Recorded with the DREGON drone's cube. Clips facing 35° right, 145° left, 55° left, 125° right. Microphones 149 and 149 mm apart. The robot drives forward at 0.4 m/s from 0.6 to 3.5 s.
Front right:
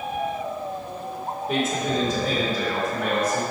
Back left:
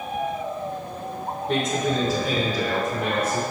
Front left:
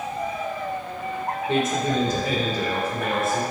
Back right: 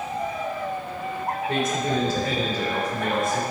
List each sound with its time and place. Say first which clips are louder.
1.5 s a man speaking: back left 1 dB, front left 3 dB; 40° left, 1.0 m; by 3.4 s 145° left, 1.0 m